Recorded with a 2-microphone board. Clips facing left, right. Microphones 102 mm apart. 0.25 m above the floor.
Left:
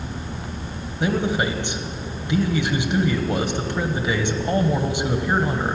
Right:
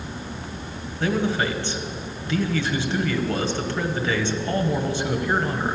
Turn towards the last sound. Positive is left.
turn(degrees=15)  # may be behind; listen again after turning